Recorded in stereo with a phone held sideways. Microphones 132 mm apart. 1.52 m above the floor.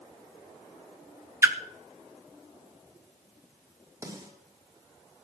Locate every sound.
1.4 s a splash: 20° right (ahead or behind), 1.1 m
4.0 s a snare drum: 25° right (ahead or behind), 4.5 m